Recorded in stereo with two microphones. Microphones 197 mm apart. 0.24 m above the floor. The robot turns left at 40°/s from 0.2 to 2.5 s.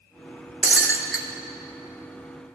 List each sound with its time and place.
0.6 s breaking glass: 70° right (ahead or behind), 0.6 m